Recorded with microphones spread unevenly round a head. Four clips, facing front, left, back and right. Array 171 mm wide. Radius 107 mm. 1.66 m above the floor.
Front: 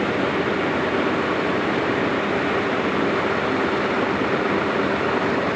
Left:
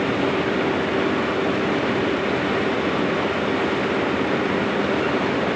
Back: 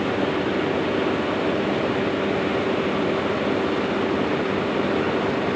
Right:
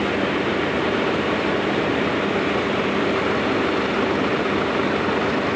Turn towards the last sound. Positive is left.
No sound to turn to.